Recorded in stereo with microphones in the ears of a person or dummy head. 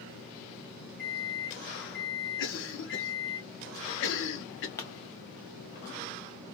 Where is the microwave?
60° left (ahead or behind), 1.7 m.